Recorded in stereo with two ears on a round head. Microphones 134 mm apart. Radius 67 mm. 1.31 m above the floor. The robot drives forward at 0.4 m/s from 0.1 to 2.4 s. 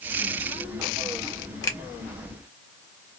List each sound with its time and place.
1.6 s a finger snap: 25° left (ahead or behind), 0.8 m